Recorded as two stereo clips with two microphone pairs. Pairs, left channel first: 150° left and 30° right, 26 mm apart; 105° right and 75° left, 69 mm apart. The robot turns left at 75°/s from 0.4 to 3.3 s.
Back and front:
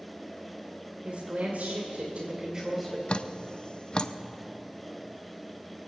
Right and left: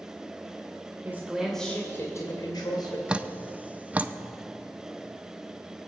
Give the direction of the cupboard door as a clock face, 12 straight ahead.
No cupboard door in this recording.